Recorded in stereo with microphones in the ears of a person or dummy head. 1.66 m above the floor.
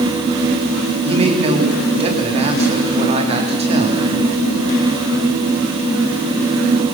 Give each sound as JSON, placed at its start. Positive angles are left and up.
{"t": 1.0, "sound": "a man speaking", "side_deg": -30, "distance_m": 3.0}